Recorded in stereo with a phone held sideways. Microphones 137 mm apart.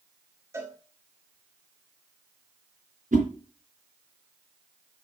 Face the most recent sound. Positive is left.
turn(degrees=-65)  # may be behind; listen again after turning